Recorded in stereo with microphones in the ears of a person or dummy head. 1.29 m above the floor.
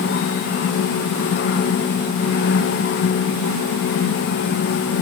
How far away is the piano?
I don't hear a piano.